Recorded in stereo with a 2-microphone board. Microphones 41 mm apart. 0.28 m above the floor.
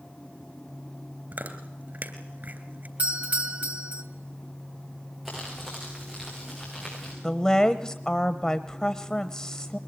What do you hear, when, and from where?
1.3 s chewing: 50° right (ahead or behind), 3 m
3.0 s a doorbell: 40° right (ahead or behind), 2 m
5.2 s crumpling: 10° right (ahead or behind), 8.5 m
7.2 s a woman speaking: 15° left (ahead or behind), 0.9 m